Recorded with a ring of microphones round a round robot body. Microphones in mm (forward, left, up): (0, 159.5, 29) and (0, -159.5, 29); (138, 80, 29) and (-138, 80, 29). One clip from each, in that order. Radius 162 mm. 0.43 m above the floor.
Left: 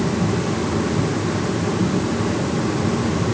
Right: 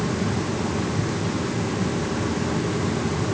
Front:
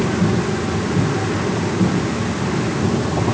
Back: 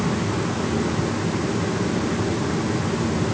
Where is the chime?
No chime in this recording.